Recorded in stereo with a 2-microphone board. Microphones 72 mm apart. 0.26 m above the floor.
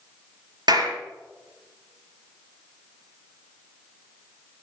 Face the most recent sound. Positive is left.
turn(degrees=-75)  # may be behind; listen again after turning